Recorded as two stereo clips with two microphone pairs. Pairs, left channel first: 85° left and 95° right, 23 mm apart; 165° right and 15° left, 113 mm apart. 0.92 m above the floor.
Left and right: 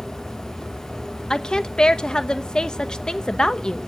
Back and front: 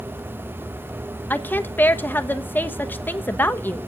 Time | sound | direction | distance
1.3 | a woman speaking | 125° left | 0.9 m